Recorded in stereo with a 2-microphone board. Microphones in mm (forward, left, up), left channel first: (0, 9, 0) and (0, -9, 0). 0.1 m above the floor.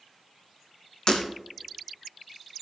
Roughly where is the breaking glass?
Left.